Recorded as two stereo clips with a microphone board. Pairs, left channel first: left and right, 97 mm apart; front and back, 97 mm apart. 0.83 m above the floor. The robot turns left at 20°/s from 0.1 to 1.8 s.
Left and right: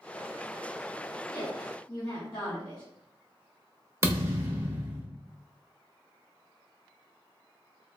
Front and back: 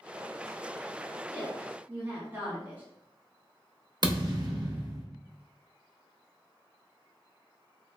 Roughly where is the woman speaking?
Behind left.